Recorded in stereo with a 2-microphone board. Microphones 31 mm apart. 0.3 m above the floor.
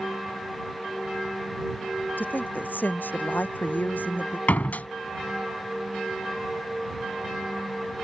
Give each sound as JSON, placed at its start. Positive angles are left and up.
{"t": 2.2, "sound": "a woman speaking", "side_deg": 85}
{"t": 4.5, "sound": "a door slam", "side_deg": 60}